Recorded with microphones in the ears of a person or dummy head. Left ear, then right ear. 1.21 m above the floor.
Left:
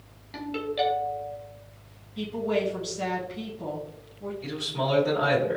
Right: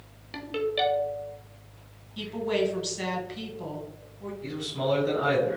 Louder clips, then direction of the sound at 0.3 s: Right 1 dB; 15° right (ahead or behind).